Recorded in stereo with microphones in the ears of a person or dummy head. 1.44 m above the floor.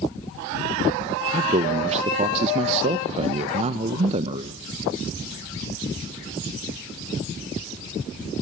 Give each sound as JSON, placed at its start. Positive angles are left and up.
{"t": 1.3, "sound": "a man speaking", "side_deg": -40, "distance_m": 0.9}